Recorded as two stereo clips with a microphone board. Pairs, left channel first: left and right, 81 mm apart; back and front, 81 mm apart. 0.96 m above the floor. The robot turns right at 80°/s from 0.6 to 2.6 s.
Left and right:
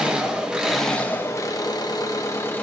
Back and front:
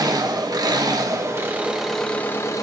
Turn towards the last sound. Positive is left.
turn(degrees=145)